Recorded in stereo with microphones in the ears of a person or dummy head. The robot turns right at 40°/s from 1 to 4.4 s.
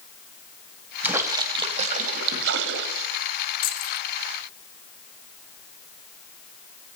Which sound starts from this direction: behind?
A splash, at 1.0 s.